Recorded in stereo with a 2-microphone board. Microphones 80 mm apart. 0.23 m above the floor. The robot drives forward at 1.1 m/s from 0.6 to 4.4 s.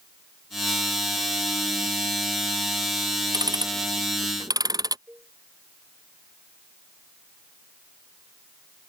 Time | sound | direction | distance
3.3 | ticking | 55° right (ahead or behind) | ?
5.1 | a cowbell | 25° right (ahead or behind) | ?